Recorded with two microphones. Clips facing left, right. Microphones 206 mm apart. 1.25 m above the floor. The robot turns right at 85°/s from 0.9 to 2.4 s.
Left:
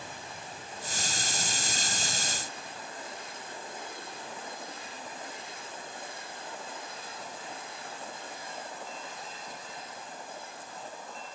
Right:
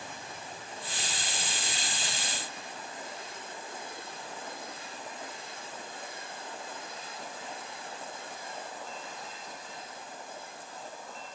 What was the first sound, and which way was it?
Only background noise.